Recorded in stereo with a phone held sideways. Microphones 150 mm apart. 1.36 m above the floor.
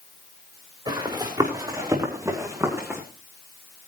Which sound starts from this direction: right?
Running footsteps, at 0.9 s.